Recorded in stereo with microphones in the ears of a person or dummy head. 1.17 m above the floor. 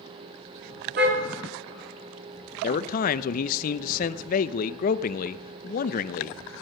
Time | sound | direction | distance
1.0 | a car horn | 60° right (ahead or behind) | 5.5 m
2.6 | a man speaking | 45° left (ahead or behind) | 0.7 m